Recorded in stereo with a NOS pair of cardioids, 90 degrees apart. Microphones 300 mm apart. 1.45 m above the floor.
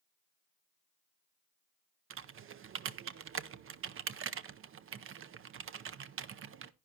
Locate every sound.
2.1 s typing on a keyboard: 45° right, 0.6 m